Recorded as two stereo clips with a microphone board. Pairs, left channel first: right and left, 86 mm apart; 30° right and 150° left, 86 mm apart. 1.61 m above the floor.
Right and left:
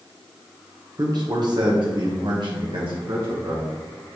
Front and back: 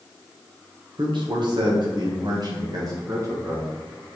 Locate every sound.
1.0 s a man speaking: 130° left, 1.6 m; by 4.2 s 100° left, 3 m